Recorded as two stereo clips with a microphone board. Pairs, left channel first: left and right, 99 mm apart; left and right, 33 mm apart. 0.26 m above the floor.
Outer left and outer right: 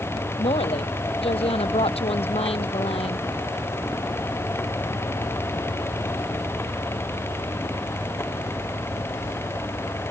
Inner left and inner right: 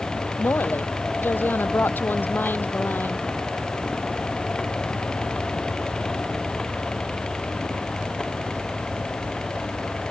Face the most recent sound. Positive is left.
turn(degrees=85)